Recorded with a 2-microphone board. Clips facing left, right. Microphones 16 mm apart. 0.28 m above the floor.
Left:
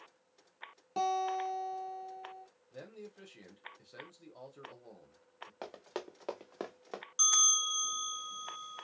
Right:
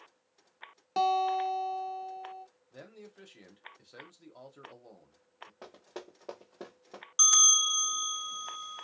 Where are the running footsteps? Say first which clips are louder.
Left 4 dB; 55° left (ahead or behind), 1.7 m; by 7.0 s 80° left, 1.4 m.